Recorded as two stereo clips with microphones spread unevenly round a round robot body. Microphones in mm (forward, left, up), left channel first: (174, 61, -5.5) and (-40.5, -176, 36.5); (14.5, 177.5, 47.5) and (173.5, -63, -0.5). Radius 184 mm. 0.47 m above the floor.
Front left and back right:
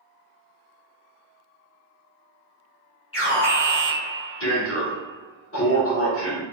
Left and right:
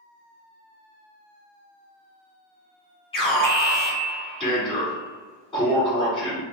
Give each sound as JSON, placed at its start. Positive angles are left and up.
{"t": 3.1, "sound": "an alarm", "azimuth_deg": 50, "distance_m": 1.7}